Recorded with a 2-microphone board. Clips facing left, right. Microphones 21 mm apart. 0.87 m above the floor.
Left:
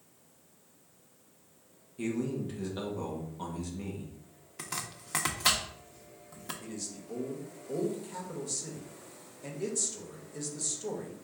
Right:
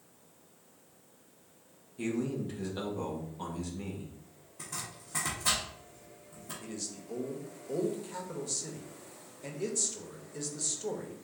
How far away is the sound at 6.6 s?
About 0.8 m.